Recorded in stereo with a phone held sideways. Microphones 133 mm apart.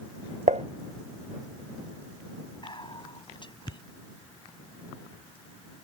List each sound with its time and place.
0.5 s dishes clattering: 70° right (ahead or behind)
2.6 s whispering: 40° left (ahead or behind)